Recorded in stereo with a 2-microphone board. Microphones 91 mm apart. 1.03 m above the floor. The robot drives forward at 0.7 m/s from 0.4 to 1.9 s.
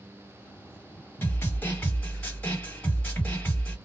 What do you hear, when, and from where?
1.2 s a snare drum: 25° left (ahead or behind), 1.4 m; by 3.8 s 20° left (ahead or behind), 1.9 m